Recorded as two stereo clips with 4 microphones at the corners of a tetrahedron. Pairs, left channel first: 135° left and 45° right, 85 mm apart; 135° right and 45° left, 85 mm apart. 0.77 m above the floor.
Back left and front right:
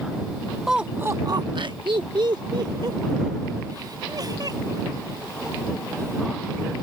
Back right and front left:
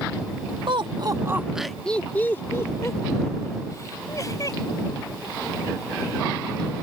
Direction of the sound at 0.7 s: 40° left.